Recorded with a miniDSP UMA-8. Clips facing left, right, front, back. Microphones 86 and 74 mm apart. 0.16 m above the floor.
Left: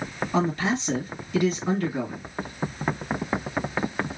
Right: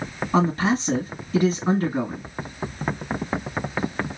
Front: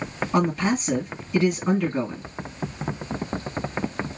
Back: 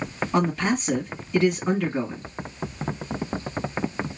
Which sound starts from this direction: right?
A man speaking, at 0.3 s.